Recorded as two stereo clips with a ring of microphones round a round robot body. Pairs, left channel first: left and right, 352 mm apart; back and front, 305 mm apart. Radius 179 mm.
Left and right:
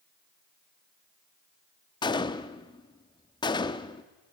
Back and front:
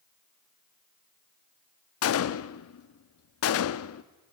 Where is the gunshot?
165° left, 0.5 m.